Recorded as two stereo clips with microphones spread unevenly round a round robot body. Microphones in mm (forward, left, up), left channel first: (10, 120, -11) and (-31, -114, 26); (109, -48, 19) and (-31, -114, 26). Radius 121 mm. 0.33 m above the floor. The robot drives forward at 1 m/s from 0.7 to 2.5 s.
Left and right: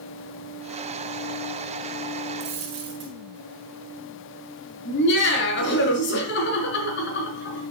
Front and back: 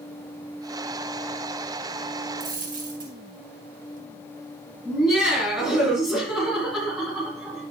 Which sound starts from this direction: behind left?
Laughter, at 4.8 s.